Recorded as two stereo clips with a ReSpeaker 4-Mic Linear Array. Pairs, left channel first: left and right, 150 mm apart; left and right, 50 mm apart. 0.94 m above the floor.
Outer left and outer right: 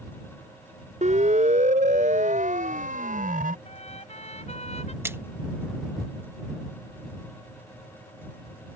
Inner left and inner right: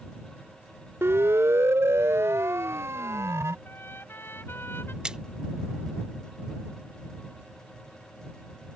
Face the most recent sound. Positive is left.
turn(degrees=-15)  # may be behind; listen again after turning